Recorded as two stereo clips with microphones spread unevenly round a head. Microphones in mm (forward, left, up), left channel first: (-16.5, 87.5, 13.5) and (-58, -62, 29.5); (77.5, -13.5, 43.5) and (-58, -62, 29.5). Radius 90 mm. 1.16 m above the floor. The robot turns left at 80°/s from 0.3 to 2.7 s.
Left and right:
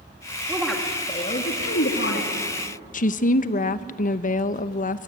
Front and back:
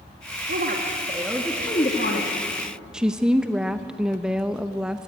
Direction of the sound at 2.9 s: 115° left.